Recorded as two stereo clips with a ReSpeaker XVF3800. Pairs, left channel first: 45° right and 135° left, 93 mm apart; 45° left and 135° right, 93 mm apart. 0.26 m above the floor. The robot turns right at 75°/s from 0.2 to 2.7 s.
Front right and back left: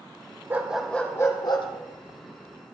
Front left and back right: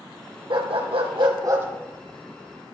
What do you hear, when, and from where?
0.5 s a dog barking: 160° right, 2.5 m; by 1.7 s 70° right, 2.5 m